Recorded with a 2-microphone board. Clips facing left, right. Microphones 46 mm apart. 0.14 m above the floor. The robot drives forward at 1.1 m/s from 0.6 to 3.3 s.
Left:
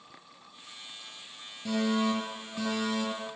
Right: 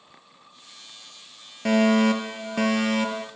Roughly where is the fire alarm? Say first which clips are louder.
Right 9 dB; right.